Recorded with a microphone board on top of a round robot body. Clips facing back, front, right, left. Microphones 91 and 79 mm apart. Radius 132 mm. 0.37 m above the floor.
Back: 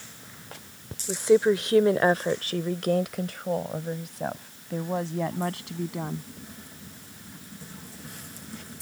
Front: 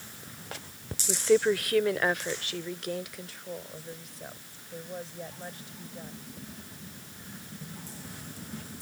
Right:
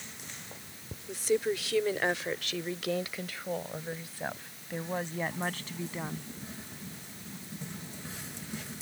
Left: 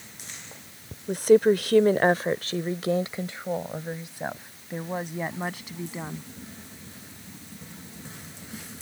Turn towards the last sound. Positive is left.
turn(degrees=170)